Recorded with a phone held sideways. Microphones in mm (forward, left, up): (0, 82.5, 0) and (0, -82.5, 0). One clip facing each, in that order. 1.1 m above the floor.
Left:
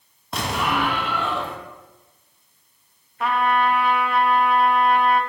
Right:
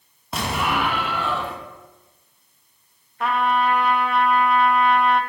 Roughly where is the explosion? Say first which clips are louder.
Even; centre.